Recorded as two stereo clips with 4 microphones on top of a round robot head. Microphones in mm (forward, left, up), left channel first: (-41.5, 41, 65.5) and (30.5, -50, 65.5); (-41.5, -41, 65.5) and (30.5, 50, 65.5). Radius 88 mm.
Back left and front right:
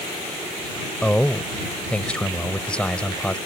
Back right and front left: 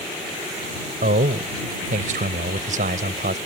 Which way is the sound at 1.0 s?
45° left.